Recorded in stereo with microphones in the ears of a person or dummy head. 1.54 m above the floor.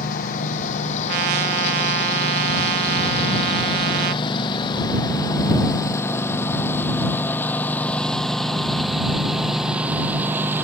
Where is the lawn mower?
45° left (ahead or behind); by 10.7 s 10° right (ahead or behind).